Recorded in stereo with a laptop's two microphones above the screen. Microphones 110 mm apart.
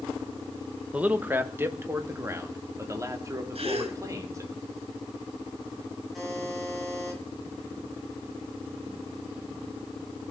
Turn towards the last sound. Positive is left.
turn(degrees=0)  # may be behind; listen again after turning